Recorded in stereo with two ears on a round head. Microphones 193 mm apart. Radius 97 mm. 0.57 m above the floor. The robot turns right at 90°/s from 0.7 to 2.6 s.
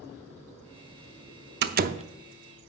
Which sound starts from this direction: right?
A door slam, at 1.6 s.